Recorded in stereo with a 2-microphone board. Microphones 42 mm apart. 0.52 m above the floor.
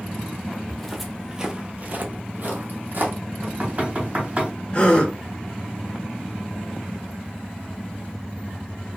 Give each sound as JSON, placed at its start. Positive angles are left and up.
{"t": 0.7, "sound": "footsteps", "side_deg": 5, "distance_m": 0.9}
{"t": 3.4, "sound": "knocking", "side_deg": -40, "distance_m": 1.6}
{"t": 4.7, "sound": "a gasp", "side_deg": 25, "distance_m": 0.9}